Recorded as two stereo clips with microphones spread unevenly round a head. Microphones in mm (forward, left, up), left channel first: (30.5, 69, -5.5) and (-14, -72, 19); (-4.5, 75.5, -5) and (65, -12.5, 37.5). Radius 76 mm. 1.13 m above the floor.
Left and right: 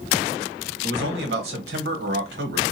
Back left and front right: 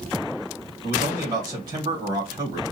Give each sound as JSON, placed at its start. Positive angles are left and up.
{"t": 0.8, "sound": "a man speaking", "azimuth_deg": -120, "distance_m": 1.5}